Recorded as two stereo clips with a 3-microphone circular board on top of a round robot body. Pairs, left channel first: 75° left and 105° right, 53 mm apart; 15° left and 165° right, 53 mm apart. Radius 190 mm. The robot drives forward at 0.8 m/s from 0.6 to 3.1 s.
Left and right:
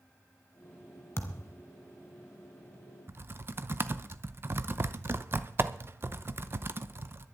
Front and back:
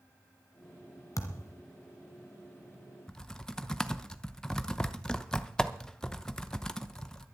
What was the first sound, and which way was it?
A thud, 30° left.